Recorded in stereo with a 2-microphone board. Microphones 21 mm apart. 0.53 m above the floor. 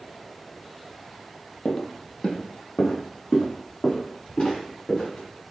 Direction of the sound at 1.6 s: 30° left (ahead or behind).